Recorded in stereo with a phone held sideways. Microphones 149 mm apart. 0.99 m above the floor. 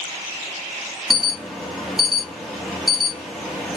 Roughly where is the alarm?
Centre.